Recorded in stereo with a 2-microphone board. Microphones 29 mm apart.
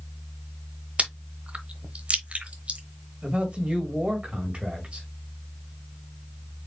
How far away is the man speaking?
About 1.8 m.